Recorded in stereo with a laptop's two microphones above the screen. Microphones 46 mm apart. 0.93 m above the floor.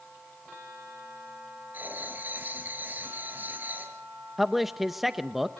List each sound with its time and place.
1.7 s writing: 40° right (ahead or behind), 6.5 m
4.4 s a man speaking: 5° right (ahead or behind), 0.9 m